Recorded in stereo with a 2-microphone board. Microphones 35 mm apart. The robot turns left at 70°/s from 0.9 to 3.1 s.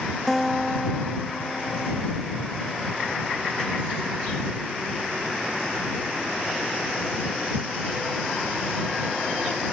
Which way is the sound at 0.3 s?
Straight behind.